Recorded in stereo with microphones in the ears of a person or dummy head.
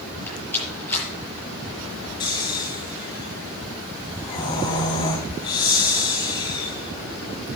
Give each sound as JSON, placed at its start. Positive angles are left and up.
{"t": 0.3, "sound": "a rattle", "side_deg": 10, "distance_m": 6.0}
{"t": 2.2, "sound": "snoring", "side_deg": 25, "distance_m": 2.5}